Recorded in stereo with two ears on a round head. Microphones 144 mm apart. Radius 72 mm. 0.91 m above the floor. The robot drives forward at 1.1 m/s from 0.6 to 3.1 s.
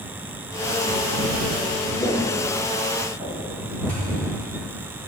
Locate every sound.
2.0 s footsteps: 15° left (ahead or behind), 2 m; by 3.5 s 30° right (ahead or behind), 3.5 m
3.9 s a thud: 10° left (ahead or behind), 3.5 m